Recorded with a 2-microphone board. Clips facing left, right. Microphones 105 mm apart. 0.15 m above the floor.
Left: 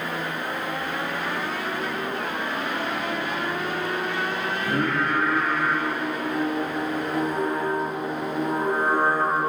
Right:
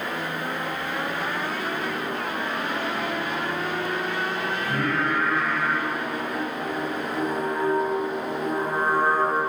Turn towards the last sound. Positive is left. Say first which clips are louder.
# left 2 dB
turn(degrees=35)  # may be behind; listen again after turning